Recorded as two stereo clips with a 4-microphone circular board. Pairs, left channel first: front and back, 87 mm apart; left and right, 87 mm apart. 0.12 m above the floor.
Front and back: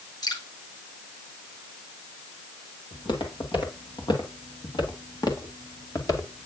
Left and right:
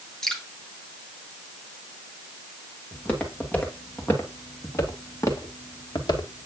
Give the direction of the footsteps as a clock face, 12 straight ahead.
11 o'clock.